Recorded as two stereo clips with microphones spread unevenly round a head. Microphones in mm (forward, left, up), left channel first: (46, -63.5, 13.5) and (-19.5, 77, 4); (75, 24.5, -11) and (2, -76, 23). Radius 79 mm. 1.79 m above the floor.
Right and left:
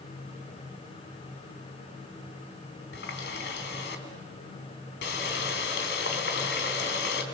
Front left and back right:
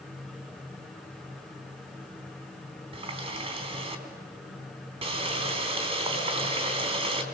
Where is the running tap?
90° right, 3.5 m.